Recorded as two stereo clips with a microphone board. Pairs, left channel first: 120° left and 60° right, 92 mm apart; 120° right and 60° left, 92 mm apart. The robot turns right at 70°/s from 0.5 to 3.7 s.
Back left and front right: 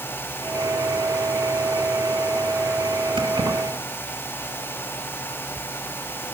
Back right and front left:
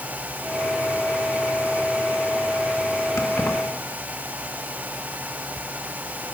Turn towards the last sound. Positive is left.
turn(degrees=-30)